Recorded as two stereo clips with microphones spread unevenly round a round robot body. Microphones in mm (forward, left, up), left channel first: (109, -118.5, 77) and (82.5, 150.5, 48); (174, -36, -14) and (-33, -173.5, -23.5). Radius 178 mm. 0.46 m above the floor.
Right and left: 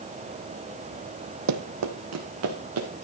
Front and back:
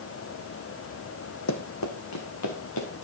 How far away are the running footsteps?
About 1.3 m.